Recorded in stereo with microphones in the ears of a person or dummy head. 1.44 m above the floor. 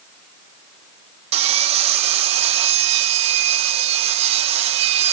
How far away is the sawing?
About 1.4 m.